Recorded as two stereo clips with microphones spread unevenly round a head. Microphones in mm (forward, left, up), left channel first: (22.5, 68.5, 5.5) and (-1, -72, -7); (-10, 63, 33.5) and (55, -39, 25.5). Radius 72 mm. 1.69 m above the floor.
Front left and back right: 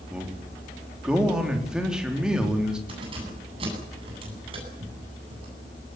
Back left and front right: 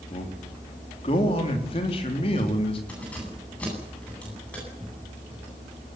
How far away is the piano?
I don't hear a piano.